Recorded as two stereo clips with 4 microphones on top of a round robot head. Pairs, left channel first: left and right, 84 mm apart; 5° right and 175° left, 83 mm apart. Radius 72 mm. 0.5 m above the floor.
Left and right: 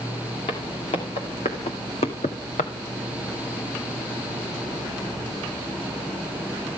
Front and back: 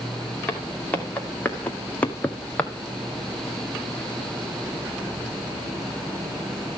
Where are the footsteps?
65° left, 3.5 m; by 2.7 s 70° left, 1.0 m.